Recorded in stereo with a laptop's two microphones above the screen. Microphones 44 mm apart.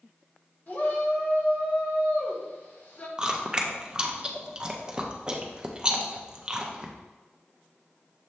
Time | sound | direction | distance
0.7 | a shout | 45° left (ahead or behind) | 1.0 m
3.2 | chewing | 20° right (ahead or behind) | 0.7 m